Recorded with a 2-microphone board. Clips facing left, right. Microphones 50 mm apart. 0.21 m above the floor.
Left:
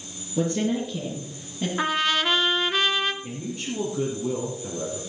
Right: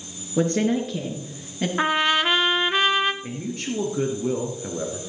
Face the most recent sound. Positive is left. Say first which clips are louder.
# right 2 dB
turn(degrees=-60)  # may be behind; listen again after turning